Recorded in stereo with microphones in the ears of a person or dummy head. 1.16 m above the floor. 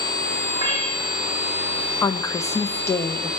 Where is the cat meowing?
25° right (ahead or behind), 3.5 m.